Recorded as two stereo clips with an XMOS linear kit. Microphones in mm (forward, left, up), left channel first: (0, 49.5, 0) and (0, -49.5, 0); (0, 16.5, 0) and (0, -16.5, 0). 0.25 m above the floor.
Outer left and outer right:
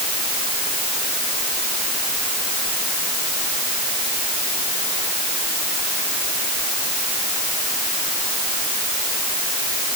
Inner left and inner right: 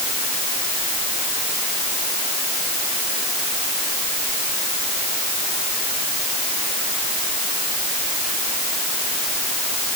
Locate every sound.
Only background noise.